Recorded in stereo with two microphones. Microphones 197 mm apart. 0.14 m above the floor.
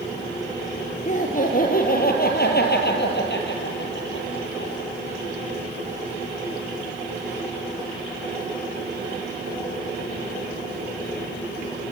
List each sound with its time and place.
1.1 s laughter: 40° left (ahead or behind), 3.5 m; by 4.7 s 70° left (ahead or behind), 3.5 m